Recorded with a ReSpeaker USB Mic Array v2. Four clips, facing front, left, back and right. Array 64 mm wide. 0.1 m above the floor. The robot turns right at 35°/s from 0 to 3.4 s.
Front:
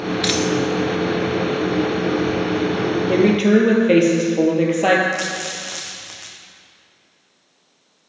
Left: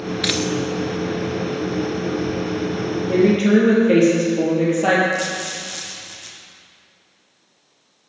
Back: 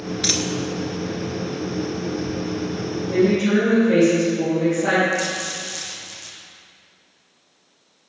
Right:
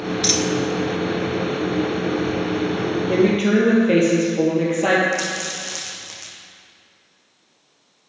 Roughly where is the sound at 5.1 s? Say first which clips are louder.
Left 1 dB, even; ahead.